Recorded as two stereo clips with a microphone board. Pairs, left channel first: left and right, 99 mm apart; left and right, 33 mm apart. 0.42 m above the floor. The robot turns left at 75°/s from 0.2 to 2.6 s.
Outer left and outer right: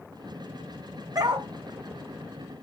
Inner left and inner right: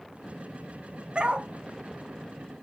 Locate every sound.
1.1 s a dog barking: 40° right (ahead or behind), 1.1 m; by 1.5 s 65° right (ahead or behind), 1.1 m